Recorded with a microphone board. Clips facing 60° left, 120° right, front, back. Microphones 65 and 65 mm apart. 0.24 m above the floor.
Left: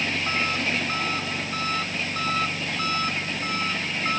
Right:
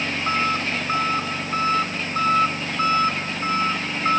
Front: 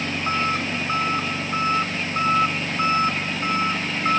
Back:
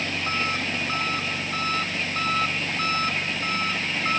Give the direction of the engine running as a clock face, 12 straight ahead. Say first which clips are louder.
Right 3 dB, front 3 dB; 2 o'clock.